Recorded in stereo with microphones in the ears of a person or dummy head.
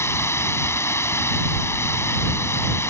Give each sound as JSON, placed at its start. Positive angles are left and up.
{"t": 0.0, "sound": "running water", "side_deg": 15}